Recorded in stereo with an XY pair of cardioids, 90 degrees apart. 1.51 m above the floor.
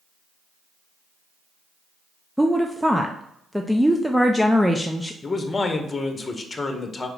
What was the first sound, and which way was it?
A woman speaking, straight ahead.